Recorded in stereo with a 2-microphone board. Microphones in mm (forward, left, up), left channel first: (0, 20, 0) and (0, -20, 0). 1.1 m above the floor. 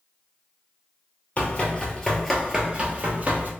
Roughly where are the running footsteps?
Left.